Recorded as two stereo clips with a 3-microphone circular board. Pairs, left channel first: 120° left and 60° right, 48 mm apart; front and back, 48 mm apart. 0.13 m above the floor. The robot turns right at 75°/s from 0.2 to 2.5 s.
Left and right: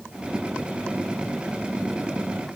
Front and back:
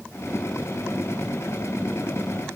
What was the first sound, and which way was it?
Only background noise.